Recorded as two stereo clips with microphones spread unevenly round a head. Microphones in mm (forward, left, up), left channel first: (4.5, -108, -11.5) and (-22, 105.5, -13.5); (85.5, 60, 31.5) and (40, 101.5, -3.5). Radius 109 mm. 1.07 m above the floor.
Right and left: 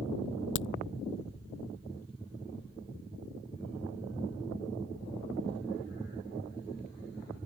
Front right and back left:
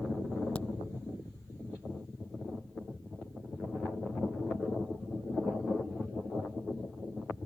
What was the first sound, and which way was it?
A crack, 120° right.